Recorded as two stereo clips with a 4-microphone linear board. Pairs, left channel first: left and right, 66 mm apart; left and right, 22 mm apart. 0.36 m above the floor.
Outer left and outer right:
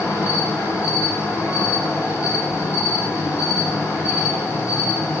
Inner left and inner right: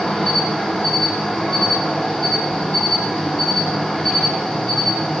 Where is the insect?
40° left (ahead or behind), 3.5 m.